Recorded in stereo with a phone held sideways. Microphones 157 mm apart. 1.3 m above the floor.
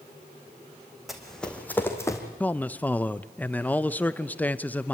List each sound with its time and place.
1.1 s running footsteps: centre (ahead or behind), 3.5 m; by 2.2 s 20° left (ahead or behind), 3.5 m
2.4 s a man speaking: 10° left (ahead or behind), 0.7 m